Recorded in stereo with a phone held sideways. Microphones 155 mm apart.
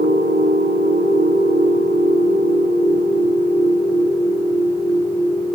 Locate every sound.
0.0 s a machine running: 75° right (ahead or behind), 4.5 m